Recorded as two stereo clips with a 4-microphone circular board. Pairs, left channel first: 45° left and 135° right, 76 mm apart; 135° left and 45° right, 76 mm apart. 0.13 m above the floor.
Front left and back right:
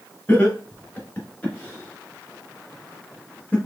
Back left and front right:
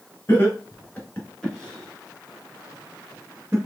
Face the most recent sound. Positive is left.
turn(degrees=-10)